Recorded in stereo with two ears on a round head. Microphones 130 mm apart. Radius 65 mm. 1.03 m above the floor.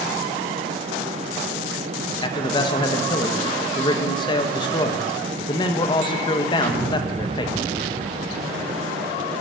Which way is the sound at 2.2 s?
30° left (ahead or behind).